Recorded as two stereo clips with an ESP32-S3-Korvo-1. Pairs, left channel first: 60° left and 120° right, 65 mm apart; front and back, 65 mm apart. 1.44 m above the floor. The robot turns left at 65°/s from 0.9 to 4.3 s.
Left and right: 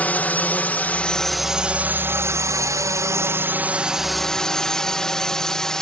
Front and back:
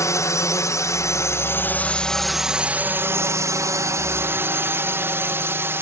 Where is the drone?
Straight ahead; by 5.8 s 140° left.